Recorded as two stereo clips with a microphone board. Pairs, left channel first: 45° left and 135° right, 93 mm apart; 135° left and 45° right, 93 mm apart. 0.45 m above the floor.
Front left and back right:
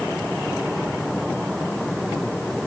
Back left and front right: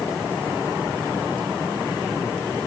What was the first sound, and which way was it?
Only background noise.